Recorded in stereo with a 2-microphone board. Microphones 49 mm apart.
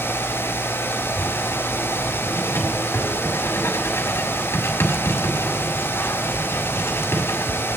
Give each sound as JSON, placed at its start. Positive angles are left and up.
{"t": 1.1, "sound": "writing", "side_deg": 60, "distance_m": 2.0}